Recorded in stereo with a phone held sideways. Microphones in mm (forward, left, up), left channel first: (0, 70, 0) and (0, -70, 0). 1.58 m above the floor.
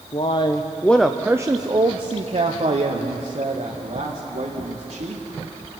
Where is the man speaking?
45° left (ahead or behind), 0.9 m; by 5.2 s 75° right (ahead or behind), 3 m.